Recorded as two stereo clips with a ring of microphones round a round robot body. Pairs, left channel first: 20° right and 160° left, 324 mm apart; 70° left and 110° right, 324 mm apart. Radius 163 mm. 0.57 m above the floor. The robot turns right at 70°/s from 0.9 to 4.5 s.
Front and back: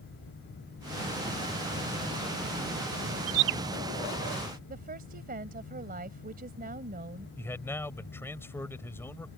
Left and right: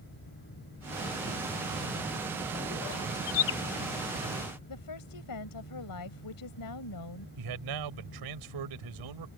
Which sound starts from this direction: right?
A man speaking, at 7.4 s.